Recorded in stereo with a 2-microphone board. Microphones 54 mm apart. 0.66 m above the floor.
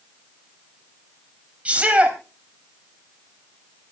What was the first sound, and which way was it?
A shout, 25° right (ahead or behind).